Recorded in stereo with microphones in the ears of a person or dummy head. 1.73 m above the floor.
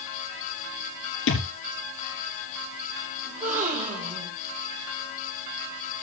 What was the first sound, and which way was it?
A thud, 65° left (ahead or behind).